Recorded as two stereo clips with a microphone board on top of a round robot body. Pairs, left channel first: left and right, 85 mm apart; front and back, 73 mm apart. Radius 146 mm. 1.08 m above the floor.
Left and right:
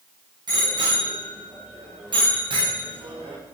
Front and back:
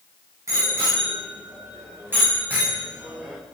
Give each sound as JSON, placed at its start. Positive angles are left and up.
{"t": 0.5, "sound": "a bicycle bell", "azimuth_deg": -125, "distance_m": 8.5}